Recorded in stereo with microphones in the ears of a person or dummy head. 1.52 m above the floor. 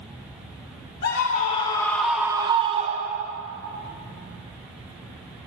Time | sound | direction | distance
1.0 | a scream | 50° left (ahead or behind) | 0.8 m